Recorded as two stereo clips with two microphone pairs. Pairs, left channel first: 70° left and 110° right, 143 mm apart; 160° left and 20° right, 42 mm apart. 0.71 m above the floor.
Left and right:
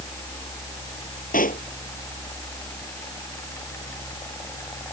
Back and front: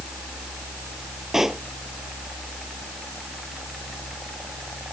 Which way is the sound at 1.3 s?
65° left.